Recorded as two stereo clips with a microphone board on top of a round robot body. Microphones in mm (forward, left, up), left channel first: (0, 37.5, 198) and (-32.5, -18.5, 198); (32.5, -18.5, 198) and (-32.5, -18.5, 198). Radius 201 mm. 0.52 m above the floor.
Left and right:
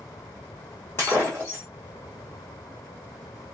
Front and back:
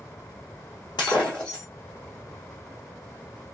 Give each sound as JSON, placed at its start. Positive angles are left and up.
{"t": 1.0, "sound": "breaking glass", "azimuth_deg": 5, "distance_m": 1.1}